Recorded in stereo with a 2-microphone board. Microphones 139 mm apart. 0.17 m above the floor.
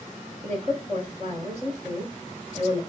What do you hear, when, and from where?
0.4 s a woman speaking: 50° right (ahead or behind), 1.8 m